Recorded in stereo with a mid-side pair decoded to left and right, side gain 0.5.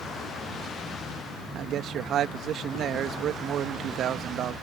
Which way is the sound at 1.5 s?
60° right.